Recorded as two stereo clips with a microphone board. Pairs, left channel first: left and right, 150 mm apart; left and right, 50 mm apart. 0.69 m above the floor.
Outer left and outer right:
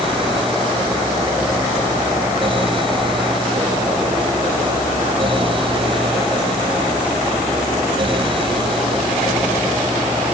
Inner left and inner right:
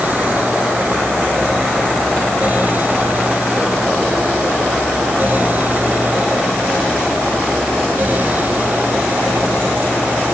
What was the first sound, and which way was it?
Only background noise.